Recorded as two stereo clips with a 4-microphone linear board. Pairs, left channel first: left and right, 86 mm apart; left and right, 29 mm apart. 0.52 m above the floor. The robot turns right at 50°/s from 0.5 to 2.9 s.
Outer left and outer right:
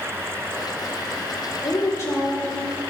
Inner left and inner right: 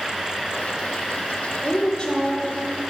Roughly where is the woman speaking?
Left.